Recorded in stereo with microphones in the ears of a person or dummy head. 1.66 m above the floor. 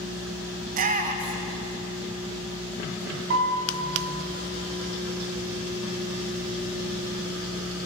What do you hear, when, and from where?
0.7 s a shout: 45° right (ahead or behind), 0.8 m
3.3 s a piano: 65° right (ahead or behind), 2 m